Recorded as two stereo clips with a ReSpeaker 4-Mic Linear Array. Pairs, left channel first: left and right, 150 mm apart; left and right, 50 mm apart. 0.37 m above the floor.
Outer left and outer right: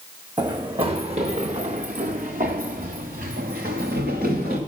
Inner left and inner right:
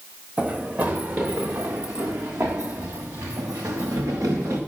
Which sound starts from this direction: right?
Running footsteps, at 0.4 s.